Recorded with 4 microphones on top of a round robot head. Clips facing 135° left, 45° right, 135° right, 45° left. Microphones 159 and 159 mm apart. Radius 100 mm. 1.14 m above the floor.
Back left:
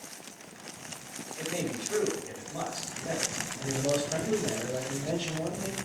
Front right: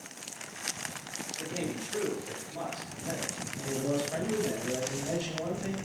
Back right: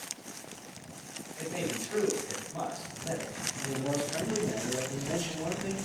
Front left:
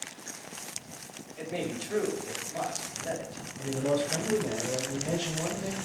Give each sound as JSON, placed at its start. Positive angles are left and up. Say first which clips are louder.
{"t": 1.4, "sound": "a man speaking", "louder": "back left 2 dB, front left 1 dB", "azimuth_deg": 100, "distance_m": 4.5}
{"t": 3.6, "sound": "a man speaking", "louder": "back left 2 dB, front left 4 dB", "azimuth_deg": 70, "distance_m": 4.5}